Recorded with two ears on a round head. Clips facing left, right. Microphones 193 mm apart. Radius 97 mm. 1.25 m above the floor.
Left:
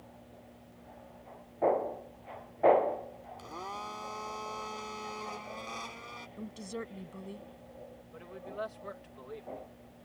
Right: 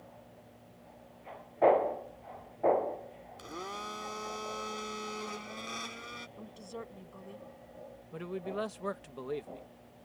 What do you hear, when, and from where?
3.4 s a blender: 20° right (ahead or behind)
6.4 s a woman speaking: 25° left (ahead or behind)
8.1 s a man speaking: 65° right (ahead or behind)